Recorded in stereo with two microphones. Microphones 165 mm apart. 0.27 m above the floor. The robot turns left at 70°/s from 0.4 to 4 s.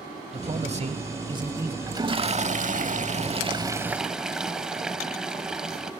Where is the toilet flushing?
25° right, 0.8 m; by 5.9 s 175° right, 0.8 m.